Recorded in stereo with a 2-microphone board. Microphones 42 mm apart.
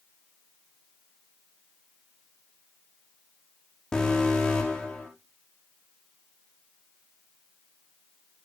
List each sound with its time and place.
3.9 s an alarm: 15° left (ahead or behind), 7 m